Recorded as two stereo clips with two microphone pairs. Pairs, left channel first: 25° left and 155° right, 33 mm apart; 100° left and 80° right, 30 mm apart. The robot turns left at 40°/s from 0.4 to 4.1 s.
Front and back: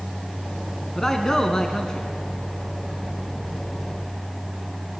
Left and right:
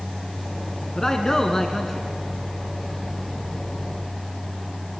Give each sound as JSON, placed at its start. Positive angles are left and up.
{"t": 0.9, "sound": "a man speaking", "azimuth_deg": 80, "distance_m": 1.7}